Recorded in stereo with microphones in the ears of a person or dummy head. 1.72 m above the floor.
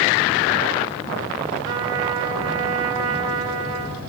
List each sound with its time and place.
1.6 s a trumpet: 45° right (ahead or behind), 1.5 m